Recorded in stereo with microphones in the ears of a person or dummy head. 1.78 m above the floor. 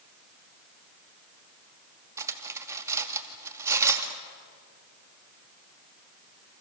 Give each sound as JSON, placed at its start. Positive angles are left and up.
{"t": 2.2, "sound": "cutlery clinking", "side_deg": -15, "distance_m": 2.0}